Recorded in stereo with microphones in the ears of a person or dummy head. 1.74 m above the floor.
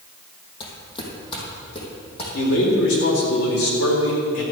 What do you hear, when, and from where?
0.6 s footsteps: 30° left (ahead or behind), 3.5 m
2.3 s a man speaking: 80° left, 3.5 m